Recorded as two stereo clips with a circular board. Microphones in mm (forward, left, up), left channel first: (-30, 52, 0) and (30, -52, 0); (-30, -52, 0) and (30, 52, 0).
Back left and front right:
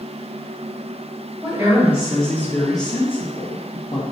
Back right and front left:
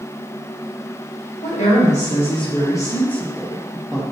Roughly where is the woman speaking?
Behind right.